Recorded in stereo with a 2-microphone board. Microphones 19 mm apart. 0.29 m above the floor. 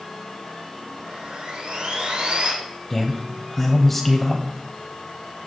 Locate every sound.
1.1 s sawing: 75° right (ahead or behind), 6.5 m
2.9 s a man speaking: 10° left (ahead or behind), 1.2 m